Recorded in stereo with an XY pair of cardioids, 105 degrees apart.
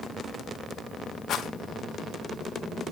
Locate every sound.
1.3 s a rattle: 55° left, 1.3 m